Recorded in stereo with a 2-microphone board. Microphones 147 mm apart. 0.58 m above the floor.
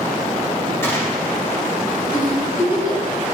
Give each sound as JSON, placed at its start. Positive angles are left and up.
{"t": 0.8, "sound": "a gunshot", "side_deg": 15, "distance_m": 1.3}
{"t": 2.1, "sound": "a giggle", "side_deg": 60, "distance_m": 3.0}